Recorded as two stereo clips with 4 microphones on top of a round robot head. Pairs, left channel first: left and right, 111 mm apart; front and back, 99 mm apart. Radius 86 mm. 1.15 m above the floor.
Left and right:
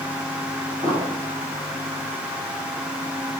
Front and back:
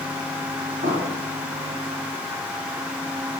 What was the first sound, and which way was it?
An explosion, 150° right.